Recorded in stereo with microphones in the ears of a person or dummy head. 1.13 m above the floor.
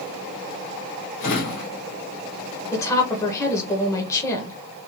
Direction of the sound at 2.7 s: 15° left (ahead or behind).